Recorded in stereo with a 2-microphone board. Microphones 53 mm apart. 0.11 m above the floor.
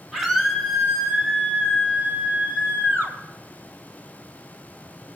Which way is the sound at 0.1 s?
5° right (ahead or behind).